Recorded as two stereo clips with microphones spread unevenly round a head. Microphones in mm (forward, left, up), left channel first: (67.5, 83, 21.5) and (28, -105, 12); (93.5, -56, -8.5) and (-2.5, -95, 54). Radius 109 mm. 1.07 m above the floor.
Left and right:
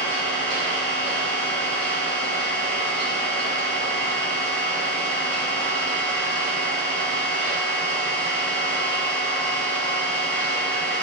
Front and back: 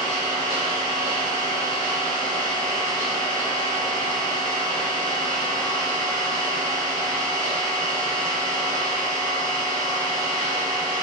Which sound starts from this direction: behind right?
An engine running, at 0.0 s.